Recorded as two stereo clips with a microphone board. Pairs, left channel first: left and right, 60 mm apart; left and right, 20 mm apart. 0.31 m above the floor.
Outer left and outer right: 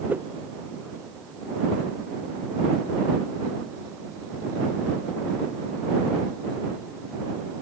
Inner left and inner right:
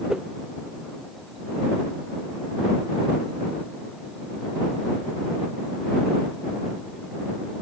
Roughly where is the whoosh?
Right.